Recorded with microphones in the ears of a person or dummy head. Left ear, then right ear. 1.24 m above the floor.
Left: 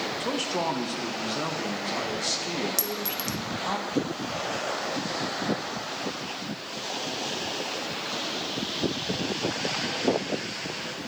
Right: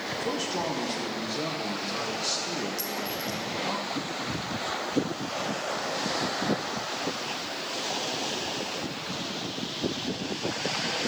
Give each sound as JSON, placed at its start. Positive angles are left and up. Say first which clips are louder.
{"t": 0.2, "sound": "a man speaking", "louder": "left 1 dB", "side_deg": 25, "distance_m": 1.1}
{"t": 2.8, "sound": "a clink", "louder": "left 1 dB", "side_deg": 45, "distance_m": 0.5}